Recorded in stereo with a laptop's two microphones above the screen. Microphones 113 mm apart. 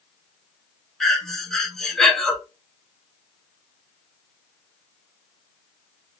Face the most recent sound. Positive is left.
turn(degrees=5)  # may be behind; listen again after turning